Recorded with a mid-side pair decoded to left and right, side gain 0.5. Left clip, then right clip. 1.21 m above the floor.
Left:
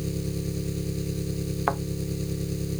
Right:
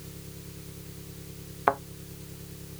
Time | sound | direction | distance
0.0 | an engine running | 70° left | ?
1.7 | a thud | 15° right | ?